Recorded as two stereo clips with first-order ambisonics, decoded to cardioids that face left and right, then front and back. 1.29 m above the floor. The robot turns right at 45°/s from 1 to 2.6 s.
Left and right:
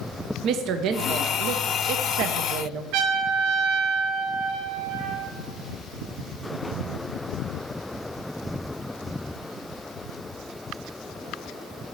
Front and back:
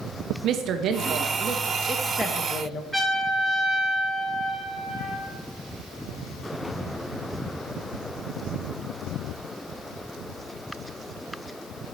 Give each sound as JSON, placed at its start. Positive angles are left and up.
{"t": 0.4, "sound": "a woman speaking", "azimuth_deg": -130, "distance_m": 0.6}
{"t": 2.9, "sound": "a trumpet", "azimuth_deg": -80, "distance_m": 2.5}